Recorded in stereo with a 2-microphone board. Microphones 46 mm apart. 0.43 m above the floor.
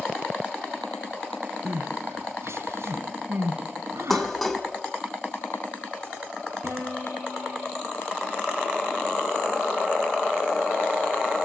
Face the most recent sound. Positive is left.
turn(degrees=-80)